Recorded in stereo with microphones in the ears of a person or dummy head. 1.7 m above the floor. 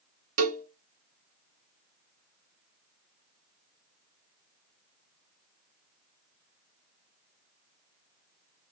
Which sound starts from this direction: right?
A cowbell, at 0.4 s.